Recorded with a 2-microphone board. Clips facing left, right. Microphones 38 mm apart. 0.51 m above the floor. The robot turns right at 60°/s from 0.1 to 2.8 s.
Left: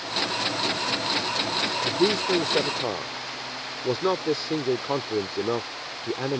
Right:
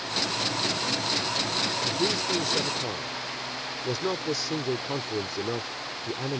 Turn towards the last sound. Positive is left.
turn(degrees=135)